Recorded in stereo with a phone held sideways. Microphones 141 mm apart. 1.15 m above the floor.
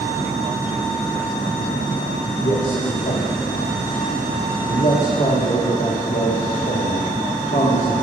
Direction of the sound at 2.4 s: 85° left.